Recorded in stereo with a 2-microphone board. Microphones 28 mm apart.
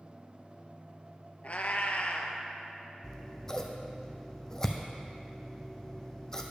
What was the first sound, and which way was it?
A cat meowing, 55° left (ahead or behind).